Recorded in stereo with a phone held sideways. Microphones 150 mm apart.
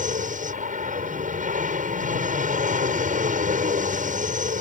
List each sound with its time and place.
0.0 s an aircraft: 55° right (ahead or behind)